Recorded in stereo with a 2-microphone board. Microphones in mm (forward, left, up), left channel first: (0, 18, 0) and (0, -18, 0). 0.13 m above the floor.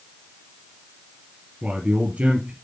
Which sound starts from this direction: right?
A man speaking, at 1.6 s.